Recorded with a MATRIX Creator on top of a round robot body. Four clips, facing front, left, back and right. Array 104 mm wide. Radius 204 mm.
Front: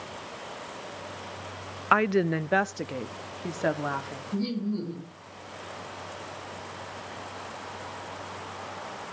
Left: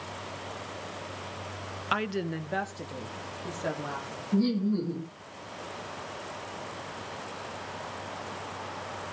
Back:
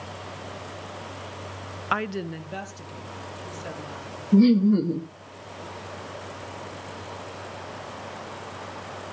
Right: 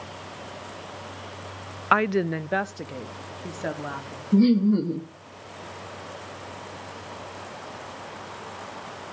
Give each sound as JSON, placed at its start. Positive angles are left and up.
{"t": 1.9, "sound": "a woman speaking", "azimuth_deg": -65, "distance_m": 0.7}
{"t": 4.3, "sound": "laughter", "azimuth_deg": -150, "distance_m": 1.7}